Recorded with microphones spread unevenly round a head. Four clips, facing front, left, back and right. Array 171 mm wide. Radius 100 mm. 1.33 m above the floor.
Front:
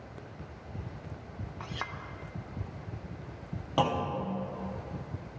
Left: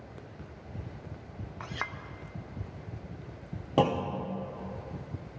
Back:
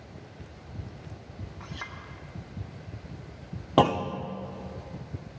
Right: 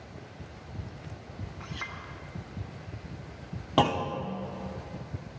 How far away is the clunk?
About 0.7 m.